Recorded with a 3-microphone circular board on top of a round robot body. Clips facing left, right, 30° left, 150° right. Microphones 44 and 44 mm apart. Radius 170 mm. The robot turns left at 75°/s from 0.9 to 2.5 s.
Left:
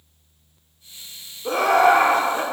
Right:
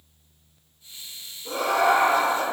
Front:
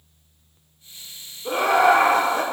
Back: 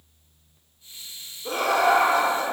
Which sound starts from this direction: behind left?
Laughter, at 1.4 s.